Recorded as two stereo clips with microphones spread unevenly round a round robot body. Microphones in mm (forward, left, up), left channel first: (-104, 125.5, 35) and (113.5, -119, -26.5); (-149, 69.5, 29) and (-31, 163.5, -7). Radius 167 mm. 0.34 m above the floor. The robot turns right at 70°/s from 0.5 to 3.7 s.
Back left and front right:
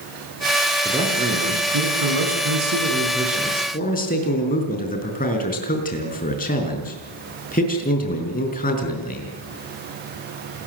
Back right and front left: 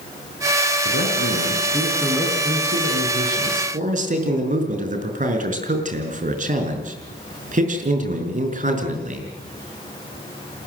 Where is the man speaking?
135° right, 5 m; by 9.3 s 65° left, 5 m.